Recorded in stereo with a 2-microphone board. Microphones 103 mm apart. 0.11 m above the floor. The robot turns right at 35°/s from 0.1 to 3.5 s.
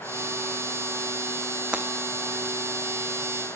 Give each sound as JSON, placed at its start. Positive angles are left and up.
{"t": 1.7, "sound": "breaking glass", "side_deg": -10, "distance_m": 1.7}